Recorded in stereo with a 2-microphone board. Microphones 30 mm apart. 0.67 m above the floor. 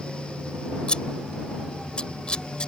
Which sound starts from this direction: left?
Scissors, at 0.9 s.